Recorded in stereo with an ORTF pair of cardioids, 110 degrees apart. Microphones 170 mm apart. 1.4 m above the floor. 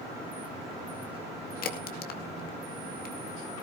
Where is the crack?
55° left, 2 m.